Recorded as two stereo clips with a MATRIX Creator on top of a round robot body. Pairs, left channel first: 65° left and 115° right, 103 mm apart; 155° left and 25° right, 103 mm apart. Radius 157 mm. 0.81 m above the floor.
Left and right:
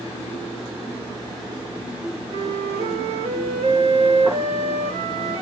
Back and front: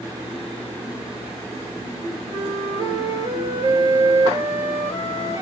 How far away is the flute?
About 4.5 m.